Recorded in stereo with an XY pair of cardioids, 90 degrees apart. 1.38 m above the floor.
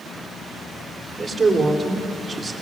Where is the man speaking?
35° right, 4.5 m.